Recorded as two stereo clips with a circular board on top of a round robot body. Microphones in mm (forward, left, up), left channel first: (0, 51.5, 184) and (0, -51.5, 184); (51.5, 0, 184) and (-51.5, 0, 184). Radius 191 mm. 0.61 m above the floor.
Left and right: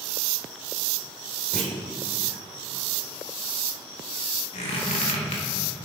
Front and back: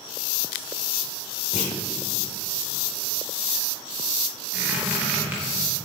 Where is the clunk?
Straight ahead, 0.9 m.